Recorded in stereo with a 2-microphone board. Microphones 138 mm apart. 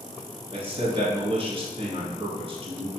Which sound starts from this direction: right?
A man speaking, at 0.5 s.